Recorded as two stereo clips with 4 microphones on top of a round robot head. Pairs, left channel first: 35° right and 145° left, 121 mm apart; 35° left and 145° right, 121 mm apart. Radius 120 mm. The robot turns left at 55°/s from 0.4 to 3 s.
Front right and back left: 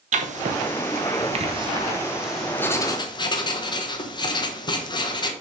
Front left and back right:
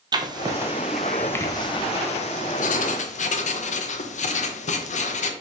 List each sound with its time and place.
0.1 s writing: 160° left, 1.1 m; by 5.3 s 20° left, 1.1 m